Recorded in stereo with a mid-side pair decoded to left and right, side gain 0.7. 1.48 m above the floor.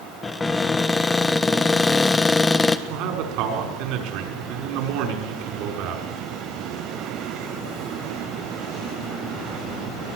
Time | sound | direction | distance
0.2 | a cupboard door | 15° left | 1.2 m
2.9 | a man speaking | 65° right | 5.5 m